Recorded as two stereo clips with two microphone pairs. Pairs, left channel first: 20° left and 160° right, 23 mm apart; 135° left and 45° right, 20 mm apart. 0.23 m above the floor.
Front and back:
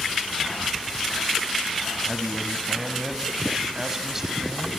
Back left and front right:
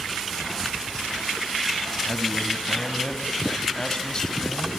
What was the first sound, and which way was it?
A man speaking, 130° left.